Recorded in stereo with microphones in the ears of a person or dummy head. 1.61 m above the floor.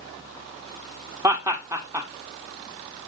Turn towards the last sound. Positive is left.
turn(degrees=-15)  # may be behind; listen again after turning